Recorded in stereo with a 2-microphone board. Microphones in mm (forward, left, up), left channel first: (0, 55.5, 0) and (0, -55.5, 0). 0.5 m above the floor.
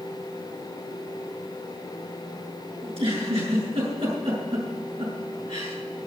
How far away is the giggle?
About 7 m.